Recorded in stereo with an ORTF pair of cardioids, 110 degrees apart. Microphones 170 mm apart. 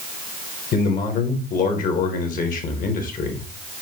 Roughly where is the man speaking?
Ahead left.